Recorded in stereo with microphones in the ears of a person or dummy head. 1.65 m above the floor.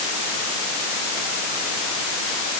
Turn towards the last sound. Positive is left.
No sound to turn to.